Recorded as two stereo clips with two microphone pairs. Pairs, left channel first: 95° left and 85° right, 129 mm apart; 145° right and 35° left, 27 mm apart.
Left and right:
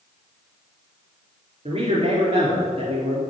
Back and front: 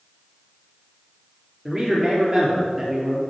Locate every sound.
1.6 s a man speaking: 45° right, 3 m